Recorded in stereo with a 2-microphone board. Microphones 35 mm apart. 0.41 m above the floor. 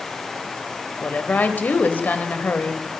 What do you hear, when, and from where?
1.0 s a woman speaking: 55° left (ahead or behind), 1.7 m